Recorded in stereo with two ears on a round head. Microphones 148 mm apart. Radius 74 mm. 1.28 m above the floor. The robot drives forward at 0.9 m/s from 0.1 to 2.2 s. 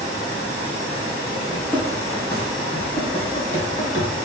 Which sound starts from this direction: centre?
Running footsteps, at 1.5 s.